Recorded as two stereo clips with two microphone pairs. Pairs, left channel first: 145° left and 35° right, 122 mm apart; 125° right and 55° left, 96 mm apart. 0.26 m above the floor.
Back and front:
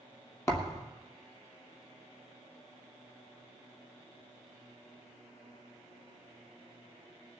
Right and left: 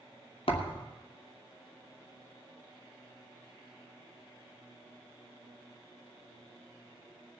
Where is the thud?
145° right, 2 m.